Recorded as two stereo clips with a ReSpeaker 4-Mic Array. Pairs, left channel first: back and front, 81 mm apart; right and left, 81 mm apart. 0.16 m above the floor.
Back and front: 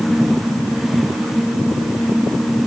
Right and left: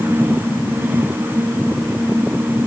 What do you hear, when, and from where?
Only background noise.